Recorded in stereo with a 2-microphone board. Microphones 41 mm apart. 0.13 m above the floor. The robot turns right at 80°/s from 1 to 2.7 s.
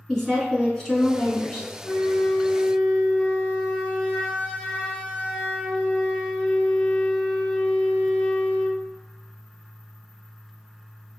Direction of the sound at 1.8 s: 25° left (ahead or behind).